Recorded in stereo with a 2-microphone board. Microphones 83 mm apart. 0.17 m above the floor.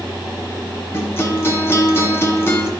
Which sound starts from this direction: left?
A guitar, at 0.9 s.